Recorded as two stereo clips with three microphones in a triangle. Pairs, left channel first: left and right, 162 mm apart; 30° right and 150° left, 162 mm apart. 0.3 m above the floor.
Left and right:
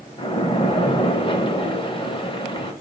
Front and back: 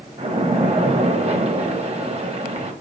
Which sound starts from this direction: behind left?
A splash, at 0.2 s.